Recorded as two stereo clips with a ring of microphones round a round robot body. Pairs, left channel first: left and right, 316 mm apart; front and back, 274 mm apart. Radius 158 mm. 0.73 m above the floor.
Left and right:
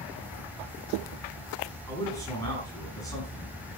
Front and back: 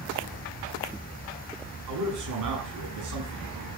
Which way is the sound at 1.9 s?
170° left.